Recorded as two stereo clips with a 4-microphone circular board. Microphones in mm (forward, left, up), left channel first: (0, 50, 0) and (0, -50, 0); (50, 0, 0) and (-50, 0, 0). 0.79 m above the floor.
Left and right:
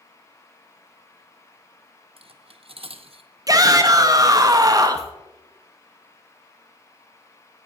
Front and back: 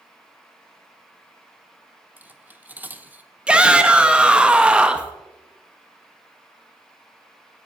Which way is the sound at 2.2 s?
110° right.